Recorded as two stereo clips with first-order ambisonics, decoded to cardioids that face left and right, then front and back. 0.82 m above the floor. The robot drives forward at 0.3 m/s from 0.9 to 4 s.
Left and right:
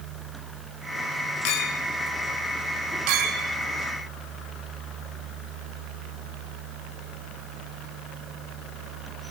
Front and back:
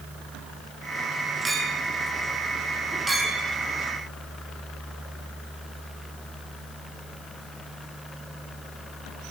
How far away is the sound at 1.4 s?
About 1.0 m.